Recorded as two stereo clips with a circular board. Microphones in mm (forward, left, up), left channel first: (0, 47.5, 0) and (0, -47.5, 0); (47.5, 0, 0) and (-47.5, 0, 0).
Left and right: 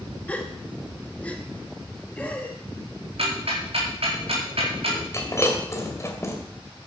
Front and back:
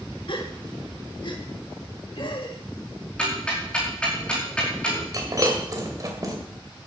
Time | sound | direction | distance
0.3 | a gasp | 15° left | 1.6 m
3.2 | ticking | 80° right | 4 m
5.1 | breaking glass | 140° left | 2 m